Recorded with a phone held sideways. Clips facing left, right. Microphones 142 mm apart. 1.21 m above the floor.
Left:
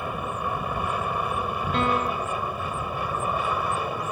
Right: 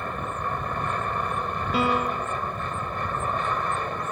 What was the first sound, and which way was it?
An aircraft, 10° left (ahead or behind).